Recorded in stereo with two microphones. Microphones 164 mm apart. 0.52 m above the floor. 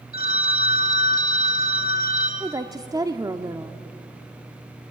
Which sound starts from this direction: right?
A woman speaking, at 2.4 s.